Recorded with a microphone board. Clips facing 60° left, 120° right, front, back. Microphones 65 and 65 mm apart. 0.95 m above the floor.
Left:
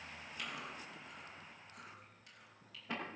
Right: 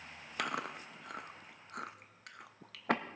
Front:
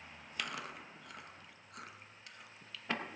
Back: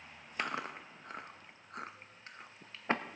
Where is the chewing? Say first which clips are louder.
Right 9 dB, back 5 dB; 125° right, 0.7 m.